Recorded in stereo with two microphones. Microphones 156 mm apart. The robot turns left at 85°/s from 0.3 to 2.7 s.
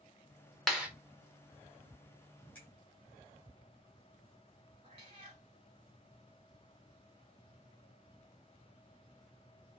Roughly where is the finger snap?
Centre.